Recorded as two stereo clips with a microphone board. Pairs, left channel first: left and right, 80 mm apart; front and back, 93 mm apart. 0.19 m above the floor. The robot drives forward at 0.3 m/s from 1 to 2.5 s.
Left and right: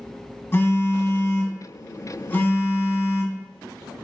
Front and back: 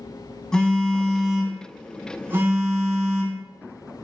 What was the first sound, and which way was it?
A phone buzzing, 75° left.